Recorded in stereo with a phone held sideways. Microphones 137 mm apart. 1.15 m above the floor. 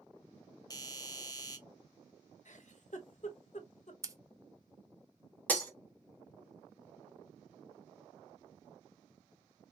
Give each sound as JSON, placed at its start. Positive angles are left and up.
{"t": 0.7, "sound": "a doorbell", "side_deg": 30, "distance_m": 0.6}
{"t": 2.5, "sound": "a giggle", "side_deg": 60, "distance_m": 0.7}
{"t": 4.0, "sound": "scissors", "side_deg": -25, "distance_m": 0.5}
{"t": 5.5, "sound": "breaking glass", "side_deg": 10, "distance_m": 0.8}